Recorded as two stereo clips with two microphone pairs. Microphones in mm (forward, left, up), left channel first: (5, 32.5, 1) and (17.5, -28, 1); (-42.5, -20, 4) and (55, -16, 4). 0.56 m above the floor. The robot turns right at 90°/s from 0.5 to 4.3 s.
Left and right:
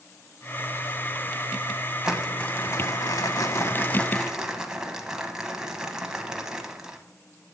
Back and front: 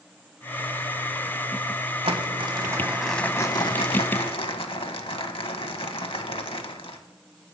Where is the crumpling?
Straight ahead, 1.0 m; by 7.0 s 155° right, 1.0 m.